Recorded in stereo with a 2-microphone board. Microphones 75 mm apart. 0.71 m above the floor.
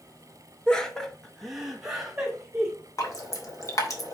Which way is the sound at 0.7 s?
10° left (ahead or behind).